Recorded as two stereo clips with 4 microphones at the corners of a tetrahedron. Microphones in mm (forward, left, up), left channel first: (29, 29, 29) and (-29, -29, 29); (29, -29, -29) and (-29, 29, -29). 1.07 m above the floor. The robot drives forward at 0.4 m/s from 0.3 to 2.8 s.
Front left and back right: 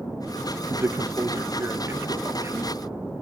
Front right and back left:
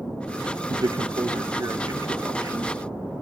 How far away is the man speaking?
About 0.5 m.